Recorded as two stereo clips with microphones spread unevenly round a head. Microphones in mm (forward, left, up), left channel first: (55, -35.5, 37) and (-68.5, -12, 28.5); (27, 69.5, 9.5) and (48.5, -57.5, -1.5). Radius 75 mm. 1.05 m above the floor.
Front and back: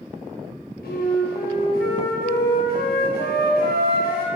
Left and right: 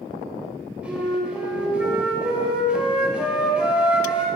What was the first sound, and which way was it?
A flute, 5° left.